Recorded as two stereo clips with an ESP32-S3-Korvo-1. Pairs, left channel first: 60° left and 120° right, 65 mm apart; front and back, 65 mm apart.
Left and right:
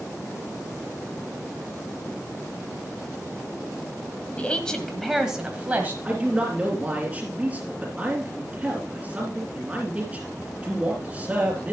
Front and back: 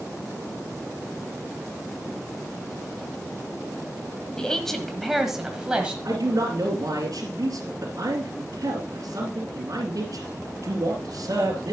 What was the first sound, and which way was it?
A woman speaking, 60° left.